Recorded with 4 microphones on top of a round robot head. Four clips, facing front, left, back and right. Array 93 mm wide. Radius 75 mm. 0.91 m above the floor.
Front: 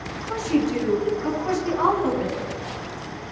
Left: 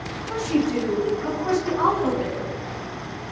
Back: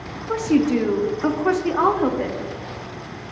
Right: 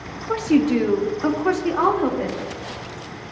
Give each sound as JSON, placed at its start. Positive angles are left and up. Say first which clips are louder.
{"t": 0.3, "sound": "a woman speaking", "louder": "right 5 dB, back 4 dB", "azimuth_deg": -120, "distance_m": 1.7}